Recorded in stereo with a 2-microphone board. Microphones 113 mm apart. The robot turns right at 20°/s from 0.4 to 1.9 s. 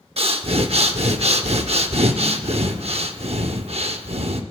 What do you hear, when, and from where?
0.2 s breathing: 110° right, 0.7 m; by 4.4 s 80° right, 0.7 m